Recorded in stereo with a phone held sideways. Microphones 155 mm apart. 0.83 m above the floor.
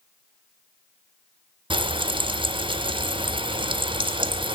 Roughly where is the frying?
Right.